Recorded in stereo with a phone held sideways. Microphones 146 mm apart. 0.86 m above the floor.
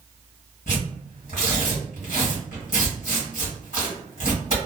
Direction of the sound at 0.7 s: 75° left (ahead or behind).